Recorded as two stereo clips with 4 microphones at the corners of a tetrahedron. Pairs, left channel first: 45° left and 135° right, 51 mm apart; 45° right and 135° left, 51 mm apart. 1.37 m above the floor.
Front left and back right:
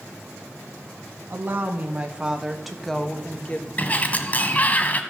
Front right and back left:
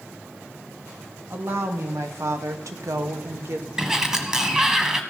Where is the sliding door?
65° left, 1.4 m.